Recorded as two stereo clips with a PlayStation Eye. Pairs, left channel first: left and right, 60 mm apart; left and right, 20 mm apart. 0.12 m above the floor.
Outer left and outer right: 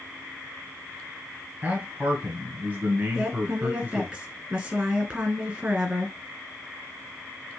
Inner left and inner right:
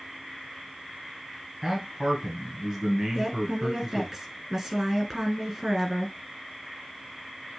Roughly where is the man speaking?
Right.